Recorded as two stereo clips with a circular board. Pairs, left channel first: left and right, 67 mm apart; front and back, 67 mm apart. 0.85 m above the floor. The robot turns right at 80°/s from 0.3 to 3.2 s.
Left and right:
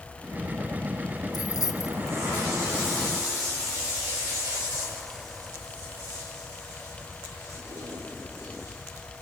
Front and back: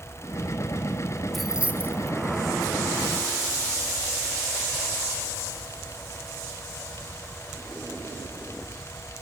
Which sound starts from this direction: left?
Keys jangling, at 1.3 s.